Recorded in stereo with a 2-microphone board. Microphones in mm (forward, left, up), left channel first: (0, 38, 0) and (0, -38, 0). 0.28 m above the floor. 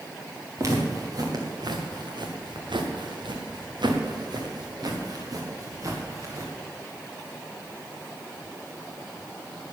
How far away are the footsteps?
About 4 m.